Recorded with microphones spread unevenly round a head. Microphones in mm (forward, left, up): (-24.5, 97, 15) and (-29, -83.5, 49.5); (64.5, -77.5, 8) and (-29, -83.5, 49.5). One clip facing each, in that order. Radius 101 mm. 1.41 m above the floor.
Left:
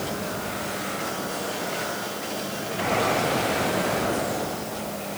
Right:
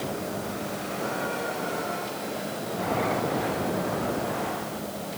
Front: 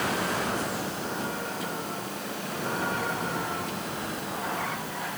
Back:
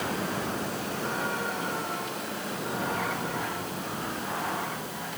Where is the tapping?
I don't hear tapping.